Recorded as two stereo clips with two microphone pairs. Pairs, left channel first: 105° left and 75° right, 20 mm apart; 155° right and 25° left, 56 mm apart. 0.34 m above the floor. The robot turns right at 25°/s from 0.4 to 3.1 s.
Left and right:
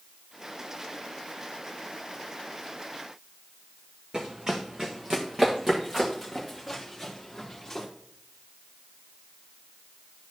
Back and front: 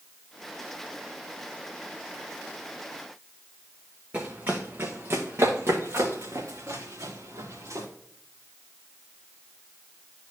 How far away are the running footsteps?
About 1.4 m.